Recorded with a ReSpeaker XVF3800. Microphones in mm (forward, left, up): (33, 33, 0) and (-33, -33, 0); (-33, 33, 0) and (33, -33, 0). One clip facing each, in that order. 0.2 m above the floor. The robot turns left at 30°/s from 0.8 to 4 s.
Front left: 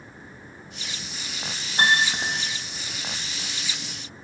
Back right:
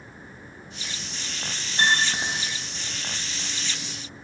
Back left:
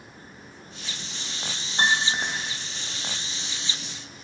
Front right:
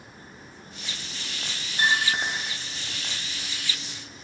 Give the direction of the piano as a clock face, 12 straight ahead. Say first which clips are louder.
Front left 2 dB, back left 1 dB; 9 o'clock.